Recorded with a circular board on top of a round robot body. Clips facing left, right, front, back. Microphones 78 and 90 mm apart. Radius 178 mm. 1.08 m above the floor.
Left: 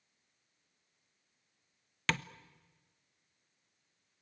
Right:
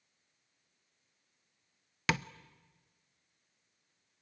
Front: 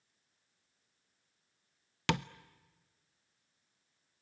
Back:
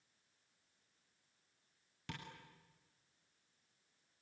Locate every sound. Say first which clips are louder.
2.1 s tapping: right 2 dB, front 17 dB; 10° right, 0.6 m